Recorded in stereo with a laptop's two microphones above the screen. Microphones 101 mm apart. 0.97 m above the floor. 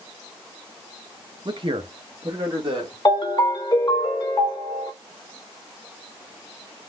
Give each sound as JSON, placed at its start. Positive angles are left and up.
{"t": 1.4, "sound": "a man speaking", "side_deg": -50, "distance_m": 0.6}
{"t": 3.0, "sound": "a ringtone", "side_deg": 50, "distance_m": 1.4}